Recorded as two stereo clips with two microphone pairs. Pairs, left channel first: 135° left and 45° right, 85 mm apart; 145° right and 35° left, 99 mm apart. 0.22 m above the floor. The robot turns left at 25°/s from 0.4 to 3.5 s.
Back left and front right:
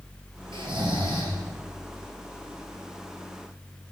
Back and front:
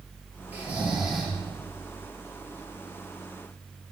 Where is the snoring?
35° right, 2 m; by 1.4 s 60° right, 2 m.